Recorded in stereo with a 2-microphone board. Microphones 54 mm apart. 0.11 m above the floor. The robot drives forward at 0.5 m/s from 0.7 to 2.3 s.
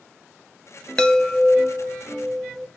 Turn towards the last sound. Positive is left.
turn(degrees=10)  # may be behind; listen again after turning